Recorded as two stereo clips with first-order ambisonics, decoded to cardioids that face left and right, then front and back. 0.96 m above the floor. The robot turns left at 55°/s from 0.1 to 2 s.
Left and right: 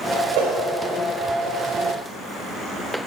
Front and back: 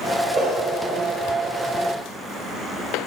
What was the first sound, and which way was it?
A whoosh, 110° right.